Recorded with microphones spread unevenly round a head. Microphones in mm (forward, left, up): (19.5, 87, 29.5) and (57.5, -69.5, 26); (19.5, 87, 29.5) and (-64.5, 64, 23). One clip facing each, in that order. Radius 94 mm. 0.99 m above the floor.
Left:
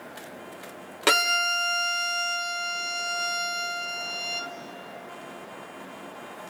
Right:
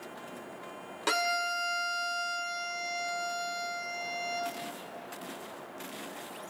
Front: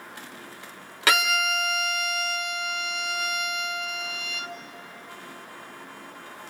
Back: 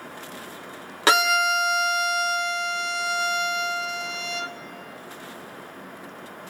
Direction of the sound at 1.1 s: 135° left.